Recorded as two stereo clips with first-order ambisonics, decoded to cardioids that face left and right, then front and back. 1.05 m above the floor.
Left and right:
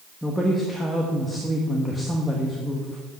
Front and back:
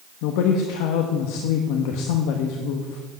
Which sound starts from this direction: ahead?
A woman speaking, at 0.2 s.